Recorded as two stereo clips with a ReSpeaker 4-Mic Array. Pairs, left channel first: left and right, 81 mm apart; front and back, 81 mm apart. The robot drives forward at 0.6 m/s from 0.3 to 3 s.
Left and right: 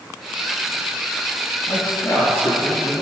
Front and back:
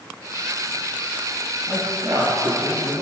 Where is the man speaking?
135° left, 2 m; by 3.0 s 150° left, 2.5 m.